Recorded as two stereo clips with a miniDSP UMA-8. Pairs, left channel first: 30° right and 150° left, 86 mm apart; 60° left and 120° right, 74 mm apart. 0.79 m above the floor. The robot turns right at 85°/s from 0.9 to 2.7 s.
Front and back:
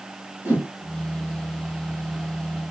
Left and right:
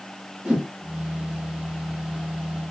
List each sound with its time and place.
0.5 s a whoosh: straight behind, 1.1 m